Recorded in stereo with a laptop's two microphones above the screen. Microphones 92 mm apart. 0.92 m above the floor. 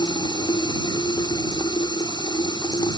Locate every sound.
0.0 s running water: 50° left (ahead or behind)